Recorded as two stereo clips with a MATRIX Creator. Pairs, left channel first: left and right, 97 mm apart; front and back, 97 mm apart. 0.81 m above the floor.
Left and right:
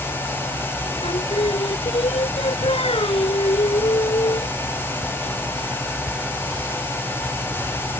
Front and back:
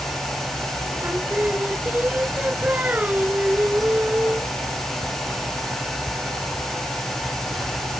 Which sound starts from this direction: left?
Singing, at 1.0 s.